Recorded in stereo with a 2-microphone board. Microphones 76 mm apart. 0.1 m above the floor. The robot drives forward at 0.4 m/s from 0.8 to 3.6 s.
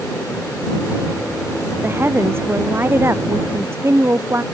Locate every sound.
1.8 s a woman speaking: 30° right (ahead or behind); by 4.4 s 35° right (ahead or behind)